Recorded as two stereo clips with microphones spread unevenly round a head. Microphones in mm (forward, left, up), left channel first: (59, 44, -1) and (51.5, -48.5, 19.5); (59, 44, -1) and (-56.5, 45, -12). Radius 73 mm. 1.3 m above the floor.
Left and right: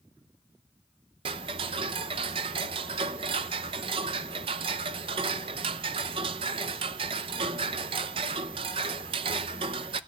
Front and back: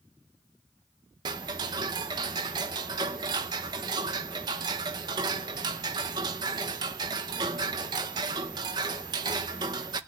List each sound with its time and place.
1.2 s ticking: 120° right, 0.6 m